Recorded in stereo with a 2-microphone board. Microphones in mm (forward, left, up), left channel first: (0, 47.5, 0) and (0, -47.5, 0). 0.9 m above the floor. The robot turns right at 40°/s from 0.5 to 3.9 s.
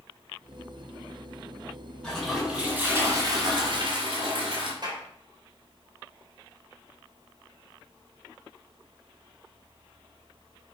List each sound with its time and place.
2.0 s a toilet flushing: 170° left, 4 m; by 4.7 s 115° right, 4 m
4.8 s a clap: 50° right (ahead or behind), 4 m